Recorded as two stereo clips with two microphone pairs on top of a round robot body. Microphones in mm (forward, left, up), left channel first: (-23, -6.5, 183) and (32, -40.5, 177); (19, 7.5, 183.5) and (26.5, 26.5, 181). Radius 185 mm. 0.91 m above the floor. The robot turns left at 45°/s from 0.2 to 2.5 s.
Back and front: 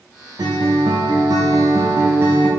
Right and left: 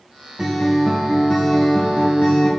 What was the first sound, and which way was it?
A guitar, 5° right.